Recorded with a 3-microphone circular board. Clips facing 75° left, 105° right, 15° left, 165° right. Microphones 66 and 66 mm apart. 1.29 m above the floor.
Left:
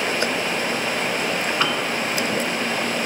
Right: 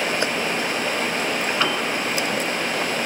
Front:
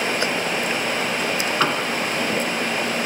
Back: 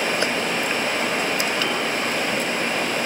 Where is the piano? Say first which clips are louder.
Even, front 3 dB; 10° right, 5 m.